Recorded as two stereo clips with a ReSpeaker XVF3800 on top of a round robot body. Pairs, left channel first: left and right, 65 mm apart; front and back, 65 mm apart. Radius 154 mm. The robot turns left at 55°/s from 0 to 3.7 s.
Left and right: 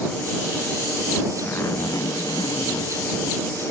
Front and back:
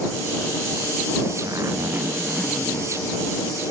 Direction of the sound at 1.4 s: 150° left.